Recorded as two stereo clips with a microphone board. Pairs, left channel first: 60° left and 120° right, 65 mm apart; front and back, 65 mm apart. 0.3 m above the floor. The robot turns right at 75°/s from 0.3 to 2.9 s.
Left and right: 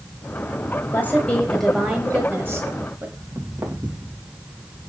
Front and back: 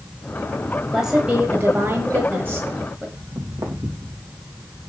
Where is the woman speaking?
95° left, 1.2 m; by 3.1 s 120° right, 1.2 m.